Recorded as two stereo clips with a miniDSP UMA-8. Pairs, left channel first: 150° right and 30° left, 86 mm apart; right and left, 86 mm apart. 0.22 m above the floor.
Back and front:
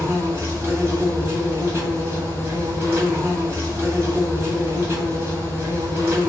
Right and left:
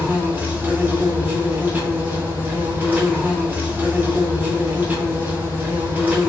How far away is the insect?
About 1.2 m.